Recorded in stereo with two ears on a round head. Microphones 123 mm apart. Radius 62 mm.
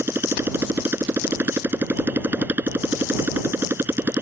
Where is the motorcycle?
15° right (ahead or behind).